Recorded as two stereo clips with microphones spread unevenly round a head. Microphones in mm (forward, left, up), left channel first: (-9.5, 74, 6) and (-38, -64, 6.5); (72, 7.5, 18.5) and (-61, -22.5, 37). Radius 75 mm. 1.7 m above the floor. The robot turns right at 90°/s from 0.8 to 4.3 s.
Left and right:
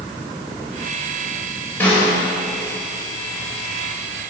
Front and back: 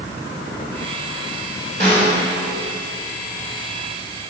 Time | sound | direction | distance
1.8 | a snare drum | 155° left | 3.5 m